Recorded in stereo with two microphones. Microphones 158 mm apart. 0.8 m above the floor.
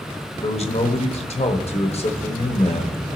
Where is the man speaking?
40° left (ahead or behind), 1.2 m.